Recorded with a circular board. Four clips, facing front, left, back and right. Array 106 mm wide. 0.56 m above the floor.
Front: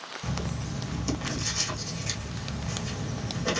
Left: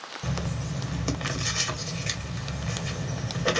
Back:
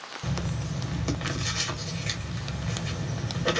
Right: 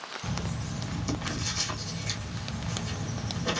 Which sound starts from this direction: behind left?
Writing, at 0.2 s.